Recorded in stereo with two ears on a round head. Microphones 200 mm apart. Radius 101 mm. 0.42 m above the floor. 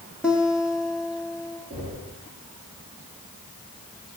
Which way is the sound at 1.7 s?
5° right (ahead or behind).